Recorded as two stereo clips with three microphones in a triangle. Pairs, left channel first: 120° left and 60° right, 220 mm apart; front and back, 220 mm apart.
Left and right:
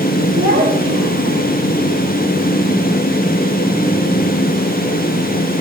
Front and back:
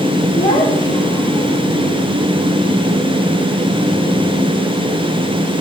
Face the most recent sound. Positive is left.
turn(degrees=-75)